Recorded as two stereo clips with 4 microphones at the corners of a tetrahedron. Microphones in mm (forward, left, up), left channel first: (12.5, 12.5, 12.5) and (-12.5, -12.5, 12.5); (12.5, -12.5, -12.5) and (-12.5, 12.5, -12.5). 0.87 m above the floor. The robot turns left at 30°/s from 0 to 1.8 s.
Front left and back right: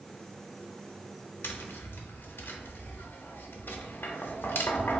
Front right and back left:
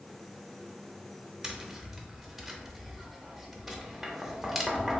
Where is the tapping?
65° left, 0.5 m; by 5.0 s 50° left, 0.5 m.